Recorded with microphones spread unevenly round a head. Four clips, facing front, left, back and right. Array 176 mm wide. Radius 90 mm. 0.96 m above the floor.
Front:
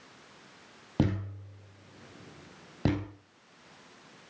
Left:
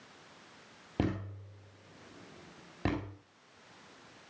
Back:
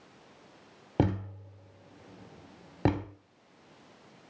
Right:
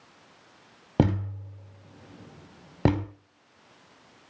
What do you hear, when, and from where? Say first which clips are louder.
1.0 s a thud: right 9 dB, back 1 dB; 85° right, 3.5 m